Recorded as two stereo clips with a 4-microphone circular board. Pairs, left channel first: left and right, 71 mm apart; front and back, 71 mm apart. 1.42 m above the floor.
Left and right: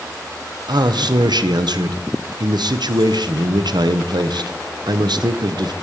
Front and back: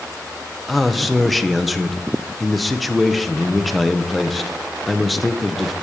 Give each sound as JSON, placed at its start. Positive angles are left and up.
{"t": 0.7, "sound": "a man speaking", "azimuth_deg": -90, "distance_m": 0.6}